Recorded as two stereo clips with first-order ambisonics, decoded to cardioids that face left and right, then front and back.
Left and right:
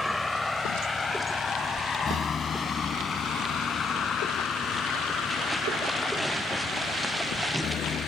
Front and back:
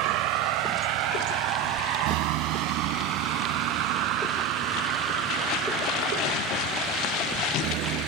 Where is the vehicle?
175° left; by 8.1 s 145° left.